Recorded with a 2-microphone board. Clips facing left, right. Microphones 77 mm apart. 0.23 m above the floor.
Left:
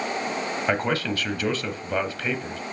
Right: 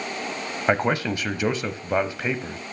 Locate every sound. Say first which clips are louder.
0.7 s a man speaking: right 4 dB; 20° right (ahead or behind), 0.9 m